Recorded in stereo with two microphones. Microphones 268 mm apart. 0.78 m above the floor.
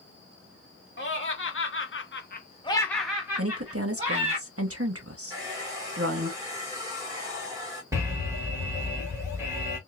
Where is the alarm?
10° right (ahead or behind), 1.7 m.